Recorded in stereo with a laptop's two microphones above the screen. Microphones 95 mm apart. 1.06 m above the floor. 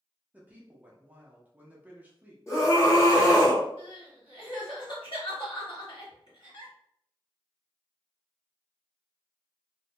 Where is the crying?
60° left (ahead or behind), 1.3 m.